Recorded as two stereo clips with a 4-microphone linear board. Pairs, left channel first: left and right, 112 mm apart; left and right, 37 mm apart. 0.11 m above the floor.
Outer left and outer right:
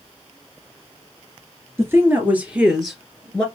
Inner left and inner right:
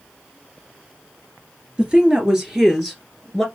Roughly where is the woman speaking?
Right.